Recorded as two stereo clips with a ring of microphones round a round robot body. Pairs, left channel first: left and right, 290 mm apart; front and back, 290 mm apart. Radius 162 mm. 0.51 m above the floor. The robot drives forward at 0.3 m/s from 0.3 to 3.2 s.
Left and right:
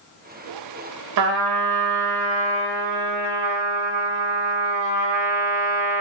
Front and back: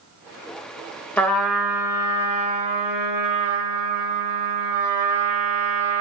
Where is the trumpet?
85° right, 0.8 m; by 6.0 s 125° right, 1.0 m.